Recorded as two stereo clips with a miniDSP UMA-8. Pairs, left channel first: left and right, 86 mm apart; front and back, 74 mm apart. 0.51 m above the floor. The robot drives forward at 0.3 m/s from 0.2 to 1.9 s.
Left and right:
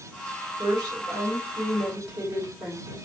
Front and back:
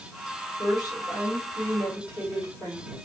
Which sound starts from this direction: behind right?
A woman speaking, at 0.6 s.